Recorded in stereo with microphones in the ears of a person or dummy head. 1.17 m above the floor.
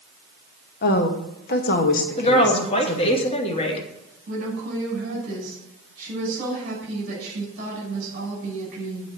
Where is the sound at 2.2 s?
30° left (ahead or behind), 2 m.